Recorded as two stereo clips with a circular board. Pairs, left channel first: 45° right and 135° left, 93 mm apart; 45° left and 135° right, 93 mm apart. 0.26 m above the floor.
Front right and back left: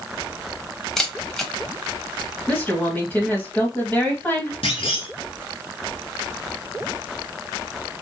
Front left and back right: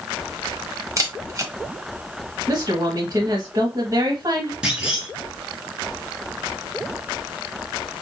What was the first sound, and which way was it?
A camera shutter, 130° right.